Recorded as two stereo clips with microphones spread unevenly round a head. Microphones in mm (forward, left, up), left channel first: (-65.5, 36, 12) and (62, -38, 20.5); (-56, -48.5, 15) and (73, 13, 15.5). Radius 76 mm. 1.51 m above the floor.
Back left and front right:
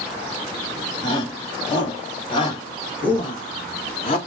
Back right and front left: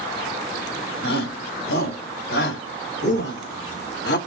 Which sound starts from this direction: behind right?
A shout, at 1.0 s.